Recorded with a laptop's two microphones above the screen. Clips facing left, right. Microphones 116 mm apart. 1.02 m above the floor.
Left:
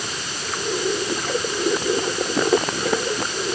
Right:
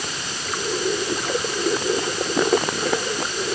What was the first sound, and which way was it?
Only background noise.